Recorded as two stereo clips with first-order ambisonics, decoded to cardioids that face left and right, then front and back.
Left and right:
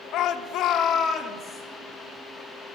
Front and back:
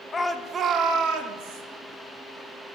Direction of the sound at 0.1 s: 65° left.